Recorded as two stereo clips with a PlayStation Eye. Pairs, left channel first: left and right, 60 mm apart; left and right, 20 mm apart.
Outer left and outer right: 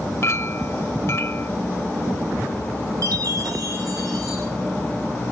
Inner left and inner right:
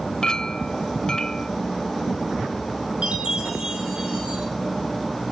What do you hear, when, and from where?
0.2 s a clink: 50° left (ahead or behind), 0.8 m
3.0 s a chime: 75° right (ahead or behind), 6 m